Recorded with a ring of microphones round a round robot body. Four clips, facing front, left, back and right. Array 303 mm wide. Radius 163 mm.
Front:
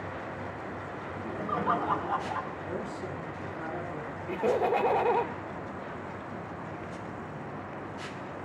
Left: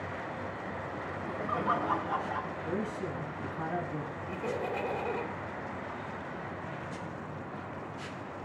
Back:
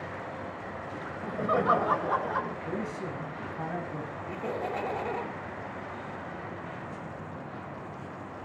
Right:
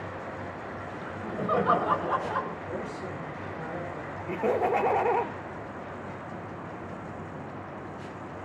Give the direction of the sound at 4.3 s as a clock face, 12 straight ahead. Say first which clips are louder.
Right 10 dB, front 8 dB; 2 o'clock.